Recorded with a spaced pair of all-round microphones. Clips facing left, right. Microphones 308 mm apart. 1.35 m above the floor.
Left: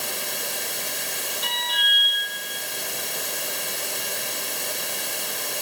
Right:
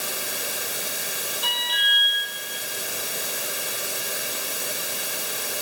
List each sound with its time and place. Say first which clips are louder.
0.0 s running water: even; 5° right (ahead or behind), 1.1 m
1.4 s an alarm: even; 20° left (ahead or behind), 5.5 m